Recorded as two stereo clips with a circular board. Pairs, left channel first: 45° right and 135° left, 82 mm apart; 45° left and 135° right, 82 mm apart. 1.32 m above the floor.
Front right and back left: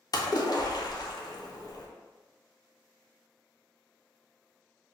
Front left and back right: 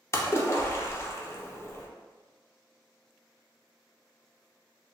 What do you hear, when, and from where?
0.1 s a splash: 15° right, 0.6 m